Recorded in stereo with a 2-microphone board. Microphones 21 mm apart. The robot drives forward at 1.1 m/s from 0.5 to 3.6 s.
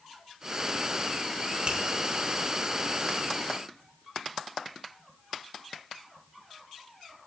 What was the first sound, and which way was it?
A finger snap, 55° right (ahead or behind).